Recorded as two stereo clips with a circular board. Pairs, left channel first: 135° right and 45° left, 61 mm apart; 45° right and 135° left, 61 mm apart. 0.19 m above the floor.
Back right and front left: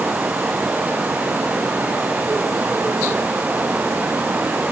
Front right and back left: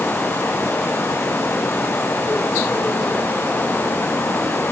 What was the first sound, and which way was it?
Only background noise.